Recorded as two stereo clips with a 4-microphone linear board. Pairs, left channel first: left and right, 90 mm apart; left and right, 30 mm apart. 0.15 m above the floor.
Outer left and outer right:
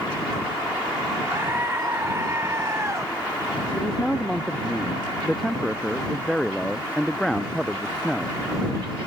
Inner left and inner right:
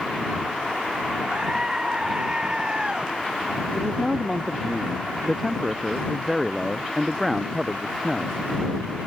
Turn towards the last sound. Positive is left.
turn(degrees=0)  # may be behind; listen again after turning